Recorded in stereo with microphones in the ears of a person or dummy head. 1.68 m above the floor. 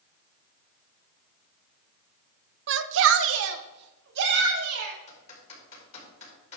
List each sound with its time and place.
2.7 s a shout: 65° right (ahead or behind), 0.7 m; by 5.0 s 70° right (ahead or behind), 2.5 m
5.1 s typing on a keyboard: 40° left (ahead or behind), 4.5 m